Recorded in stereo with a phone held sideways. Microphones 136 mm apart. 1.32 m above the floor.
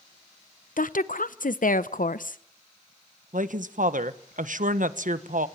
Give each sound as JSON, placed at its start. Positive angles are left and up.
{"t": 0.8, "sound": "a woman speaking", "side_deg": 85, "distance_m": 0.9}
{"t": 3.3, "sound": "a woman speaking", "side_deg": -75, "distance_m": 1.2}